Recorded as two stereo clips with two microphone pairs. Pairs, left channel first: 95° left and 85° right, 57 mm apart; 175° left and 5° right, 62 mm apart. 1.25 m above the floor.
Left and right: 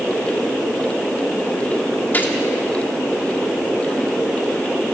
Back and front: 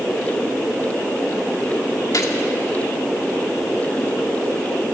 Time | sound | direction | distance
2.1 | a gunshot | 150° left | 2 m